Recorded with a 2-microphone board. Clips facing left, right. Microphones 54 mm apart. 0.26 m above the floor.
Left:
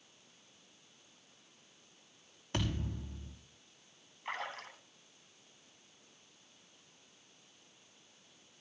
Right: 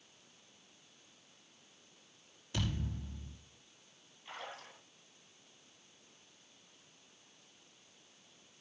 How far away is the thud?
About 5.5 m.